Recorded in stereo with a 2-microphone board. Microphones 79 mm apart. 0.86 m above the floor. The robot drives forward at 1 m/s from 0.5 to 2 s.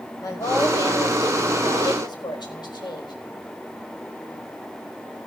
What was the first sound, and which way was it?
A woman speaking, 50° left (ahead or behind).